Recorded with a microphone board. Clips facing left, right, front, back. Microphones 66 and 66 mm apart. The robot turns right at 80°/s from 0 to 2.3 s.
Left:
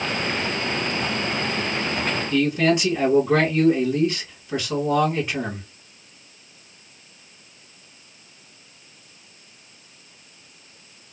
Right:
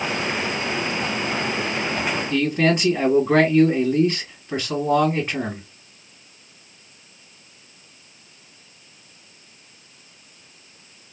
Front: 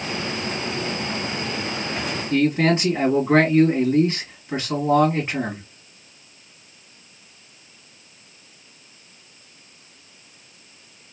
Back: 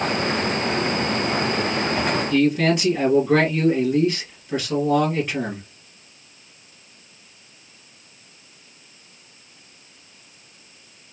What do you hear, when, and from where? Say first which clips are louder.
2.3 s a man speaking: even, front 1 dB; 50° right, 2.5 m